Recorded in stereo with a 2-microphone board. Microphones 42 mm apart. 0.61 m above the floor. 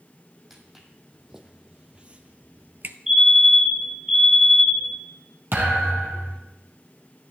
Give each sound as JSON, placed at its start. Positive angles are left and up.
{"t": 0.5, "sound": "footsteps", "side_deg": -5, "distance_m": 2.0}
{"t": 3.1, "sound": "a fire alarm", "side_deg": -10, "distance_m": 6.5}
{"t": 5.5, "sound": "a thud", "side_deg": -60, "distance_m": 3.5}